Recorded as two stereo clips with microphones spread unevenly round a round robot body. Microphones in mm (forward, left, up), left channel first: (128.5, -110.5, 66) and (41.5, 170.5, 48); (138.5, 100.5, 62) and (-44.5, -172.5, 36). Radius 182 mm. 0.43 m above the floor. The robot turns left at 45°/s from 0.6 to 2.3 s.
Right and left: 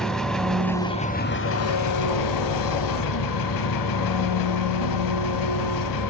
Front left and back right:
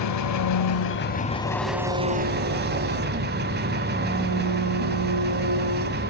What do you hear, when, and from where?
0.0 s an engine running: 15° left, 0.7 m; by 6.1 s 60° right, 0.7 m